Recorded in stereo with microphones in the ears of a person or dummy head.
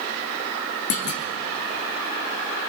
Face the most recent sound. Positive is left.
turn(degrees=35)  # may be behind; listen again after turning